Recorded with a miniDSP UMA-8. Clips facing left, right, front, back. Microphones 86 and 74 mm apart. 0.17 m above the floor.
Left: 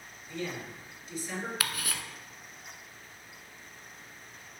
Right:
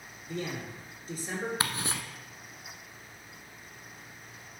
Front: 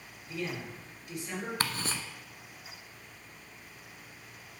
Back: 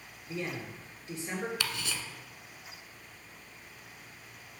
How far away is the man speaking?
About 3.5 m.